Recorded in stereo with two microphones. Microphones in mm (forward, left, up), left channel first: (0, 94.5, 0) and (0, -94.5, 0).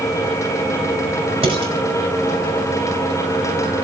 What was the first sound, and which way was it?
Dishes clattering, 30° right (ahead or behind).